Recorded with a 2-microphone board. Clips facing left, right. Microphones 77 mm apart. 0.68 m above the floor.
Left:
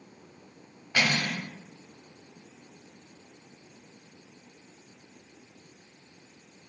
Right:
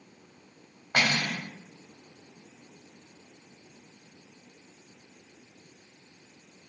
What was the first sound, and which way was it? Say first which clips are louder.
Cutlery clinking: even; 65° right (ahead or behind).